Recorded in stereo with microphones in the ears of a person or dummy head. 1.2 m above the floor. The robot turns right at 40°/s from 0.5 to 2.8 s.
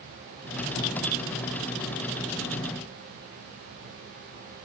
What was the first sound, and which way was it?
Only background noise.